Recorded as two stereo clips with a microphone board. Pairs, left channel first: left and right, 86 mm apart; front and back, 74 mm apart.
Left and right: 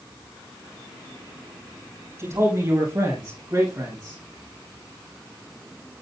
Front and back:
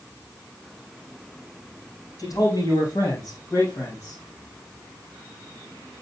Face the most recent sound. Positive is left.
turn(degrees=-50)